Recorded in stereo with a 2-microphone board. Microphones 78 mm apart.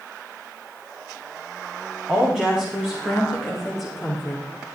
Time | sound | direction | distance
2.1 | a woman speaking | 15° right (ahead or behind) | 7 m